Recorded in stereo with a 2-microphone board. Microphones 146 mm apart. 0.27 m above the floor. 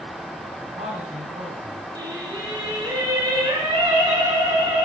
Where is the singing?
35° right (ahead or behind), 3 m.